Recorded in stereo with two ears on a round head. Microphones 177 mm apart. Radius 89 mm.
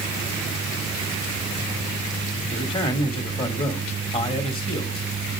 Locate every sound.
2.5 s a man speaking: 25° left (ahead or behind), 2 m